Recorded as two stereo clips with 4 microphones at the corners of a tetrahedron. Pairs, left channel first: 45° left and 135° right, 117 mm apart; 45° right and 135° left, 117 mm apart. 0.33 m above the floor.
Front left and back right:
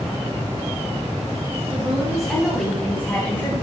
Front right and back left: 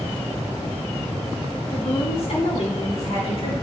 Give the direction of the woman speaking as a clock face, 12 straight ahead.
2 o'clock.